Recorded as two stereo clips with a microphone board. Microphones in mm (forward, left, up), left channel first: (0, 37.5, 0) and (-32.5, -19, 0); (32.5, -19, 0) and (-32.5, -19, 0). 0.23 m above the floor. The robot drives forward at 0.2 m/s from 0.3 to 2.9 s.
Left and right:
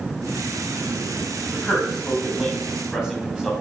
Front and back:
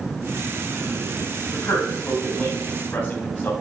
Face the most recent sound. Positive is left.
turn(degrees=-40)